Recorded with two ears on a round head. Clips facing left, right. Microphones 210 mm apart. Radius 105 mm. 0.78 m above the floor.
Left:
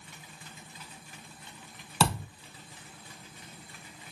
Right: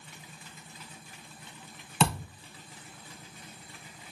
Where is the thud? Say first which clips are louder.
Even; centre (ahead or behind), 1.3 m.